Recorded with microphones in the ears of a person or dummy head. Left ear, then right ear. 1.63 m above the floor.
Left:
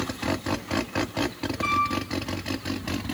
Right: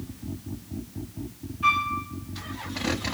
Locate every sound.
1.6 s a piano: 40° left (ahead or behind), 1.3 m